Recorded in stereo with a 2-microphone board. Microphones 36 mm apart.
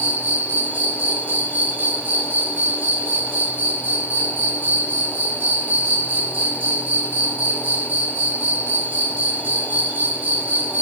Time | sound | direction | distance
0.0 | an insect | 50° right (ahead or behind) | 0.8 m